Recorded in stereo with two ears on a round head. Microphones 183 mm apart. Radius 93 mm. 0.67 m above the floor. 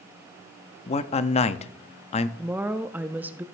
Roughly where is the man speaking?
Left.